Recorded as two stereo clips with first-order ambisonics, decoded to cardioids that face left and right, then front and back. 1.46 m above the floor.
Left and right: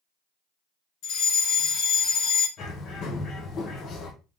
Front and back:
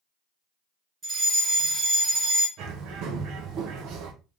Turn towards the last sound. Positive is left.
turn(degrees=140)